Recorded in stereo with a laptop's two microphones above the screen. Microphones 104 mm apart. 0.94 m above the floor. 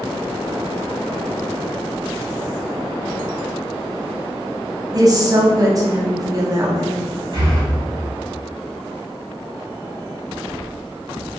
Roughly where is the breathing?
Right.